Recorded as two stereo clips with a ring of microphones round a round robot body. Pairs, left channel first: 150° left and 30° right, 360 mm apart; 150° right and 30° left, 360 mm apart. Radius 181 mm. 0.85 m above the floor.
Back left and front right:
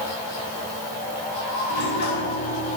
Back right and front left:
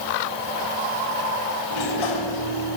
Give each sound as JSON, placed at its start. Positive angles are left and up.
{"t": 1.7, "sound": "a sliding door", "azimuth_deg": -150, "distance_m": 4.0}